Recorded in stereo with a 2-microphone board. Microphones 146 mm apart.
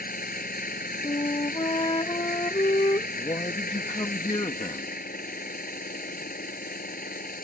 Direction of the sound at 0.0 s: 85° left.